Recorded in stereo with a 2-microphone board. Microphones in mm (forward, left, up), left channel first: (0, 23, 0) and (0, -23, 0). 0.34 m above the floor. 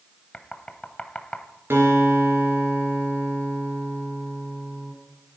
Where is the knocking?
20° left (ahead or behind), 1.3 m.